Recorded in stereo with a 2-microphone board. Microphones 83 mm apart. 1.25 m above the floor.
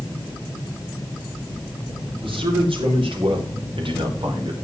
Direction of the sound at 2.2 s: 85° right.